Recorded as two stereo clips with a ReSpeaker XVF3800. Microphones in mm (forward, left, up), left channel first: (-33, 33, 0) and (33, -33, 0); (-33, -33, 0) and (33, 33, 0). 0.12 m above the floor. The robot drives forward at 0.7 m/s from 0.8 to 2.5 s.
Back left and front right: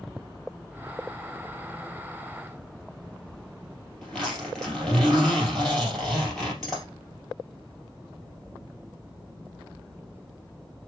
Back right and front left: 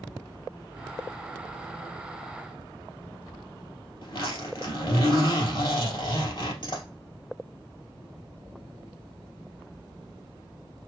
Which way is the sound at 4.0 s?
140° right.